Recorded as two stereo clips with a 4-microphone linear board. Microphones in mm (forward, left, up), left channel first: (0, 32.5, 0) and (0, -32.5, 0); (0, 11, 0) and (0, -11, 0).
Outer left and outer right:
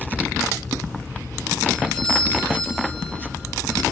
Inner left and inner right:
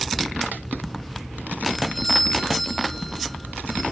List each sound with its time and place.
1.7 s a doorbell: 25° left (ahead or behind), 9.5 m